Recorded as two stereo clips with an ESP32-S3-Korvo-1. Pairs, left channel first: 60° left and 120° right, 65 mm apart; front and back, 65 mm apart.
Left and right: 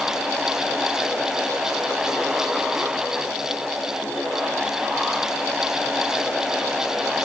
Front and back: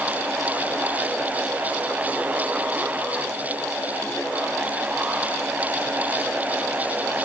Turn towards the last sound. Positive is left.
No sound to turn to.